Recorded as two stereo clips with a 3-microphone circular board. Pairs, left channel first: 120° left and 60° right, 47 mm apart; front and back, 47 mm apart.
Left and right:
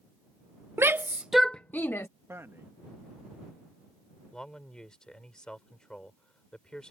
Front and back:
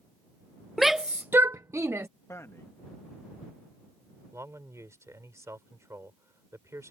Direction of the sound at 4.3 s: 165° right.